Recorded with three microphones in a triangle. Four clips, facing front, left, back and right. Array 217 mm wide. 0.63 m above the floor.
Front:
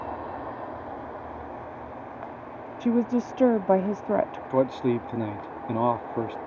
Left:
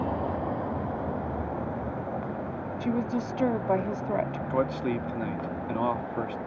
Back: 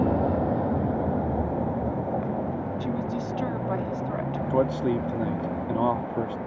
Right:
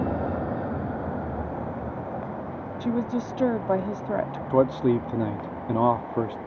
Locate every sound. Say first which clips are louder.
0.0 s a vehicle: right 2 dB, back 10 dB; 165° right; by 6.5 s 165° left
2.8 s a woman speaking: right 2 dB, front 5 dB; 5° right
4.5 s a man speaking: right 8 dB, even; 80° right